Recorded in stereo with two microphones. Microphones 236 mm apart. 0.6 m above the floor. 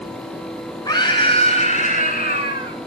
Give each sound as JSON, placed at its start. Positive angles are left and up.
{"t": 0.8, "sound": "a scream", "side_deg": 15, "distance_m": 6.0}